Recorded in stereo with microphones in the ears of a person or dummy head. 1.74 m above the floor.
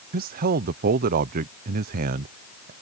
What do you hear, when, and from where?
0.1 s a man speaking: 45° right (ahead or behind)